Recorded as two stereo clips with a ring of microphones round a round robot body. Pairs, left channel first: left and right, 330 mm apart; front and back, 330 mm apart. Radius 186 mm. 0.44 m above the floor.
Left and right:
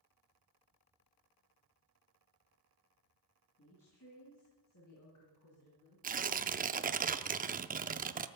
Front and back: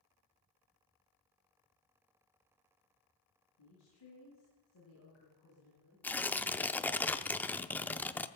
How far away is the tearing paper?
About 0.6 m.